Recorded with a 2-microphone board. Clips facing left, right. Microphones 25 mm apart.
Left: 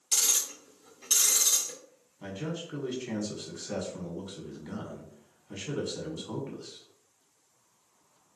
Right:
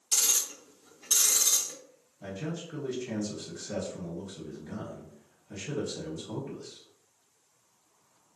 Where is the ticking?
55° left (ahead or behind), 2.0 m.